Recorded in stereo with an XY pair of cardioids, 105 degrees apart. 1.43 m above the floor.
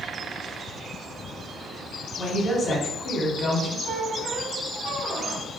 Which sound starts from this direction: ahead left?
A woman speaking, at 2.2 s.